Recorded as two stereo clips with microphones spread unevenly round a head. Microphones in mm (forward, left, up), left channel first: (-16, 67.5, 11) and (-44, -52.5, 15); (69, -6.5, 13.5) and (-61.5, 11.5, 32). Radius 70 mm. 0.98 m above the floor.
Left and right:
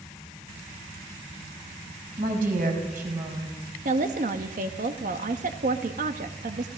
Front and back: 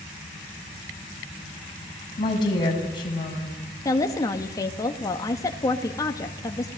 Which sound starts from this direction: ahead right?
A woman speaking, at 2.2 s.